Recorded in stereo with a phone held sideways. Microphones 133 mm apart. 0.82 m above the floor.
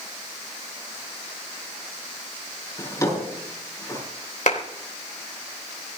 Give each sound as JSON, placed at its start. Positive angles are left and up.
{"t": 2.8, "sound": "a drawer", "side_deg": 25, "distance_m": 7.0}
{"t": 4.5, "sound": "a clap", "side_deg": 75, "distance_m": 3.5}